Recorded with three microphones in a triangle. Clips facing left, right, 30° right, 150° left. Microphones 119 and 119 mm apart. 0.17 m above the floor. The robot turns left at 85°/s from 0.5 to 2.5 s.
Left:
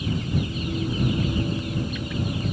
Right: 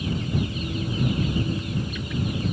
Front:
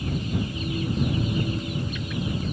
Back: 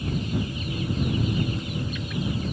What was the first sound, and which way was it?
Only background noise.